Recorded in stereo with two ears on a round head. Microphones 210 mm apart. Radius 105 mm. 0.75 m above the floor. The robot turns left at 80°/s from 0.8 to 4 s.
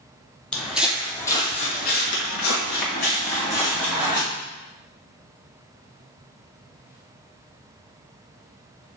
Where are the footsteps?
5° left (ahead or behind), 0.9 m; by 4.2 s 20° right (ahead or behind), 2.5 m.